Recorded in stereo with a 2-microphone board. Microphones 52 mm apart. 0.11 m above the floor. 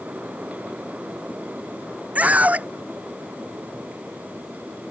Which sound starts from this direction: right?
A scream, at 2.1 s.